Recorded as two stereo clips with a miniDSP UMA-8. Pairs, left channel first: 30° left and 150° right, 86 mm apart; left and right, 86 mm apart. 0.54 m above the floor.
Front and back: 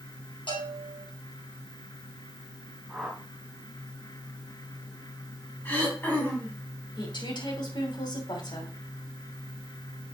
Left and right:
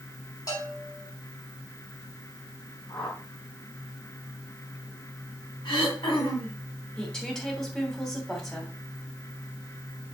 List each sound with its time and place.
0.5 s a bell: 45° left, 4.5 m
2.9 s a whoosh: 115° left, 4 m
5.7 s throat clearing: 95° left, 3.5 m
7.0 s a woman speaking: 5° left, 3 m